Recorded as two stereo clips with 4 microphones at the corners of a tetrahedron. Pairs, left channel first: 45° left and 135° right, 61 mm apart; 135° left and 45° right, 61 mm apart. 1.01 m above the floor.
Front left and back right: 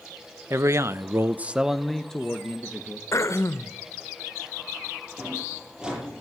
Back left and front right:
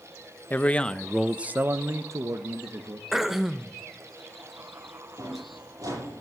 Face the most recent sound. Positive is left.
turn(degrees=-60)